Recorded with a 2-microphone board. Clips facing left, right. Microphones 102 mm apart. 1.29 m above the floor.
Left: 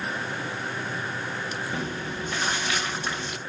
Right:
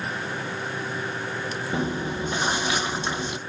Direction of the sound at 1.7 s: 20° right (ahead or behind).